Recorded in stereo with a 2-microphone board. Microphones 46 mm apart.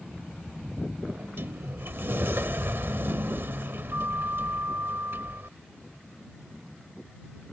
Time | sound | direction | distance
1.1 | a sliding door | 65° right (ahead or behind) | ?